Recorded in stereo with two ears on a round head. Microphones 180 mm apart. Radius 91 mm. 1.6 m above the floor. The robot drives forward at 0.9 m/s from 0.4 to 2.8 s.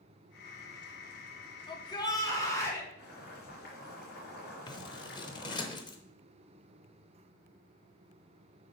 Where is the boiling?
55° left (ahead or behind), 3.5 m.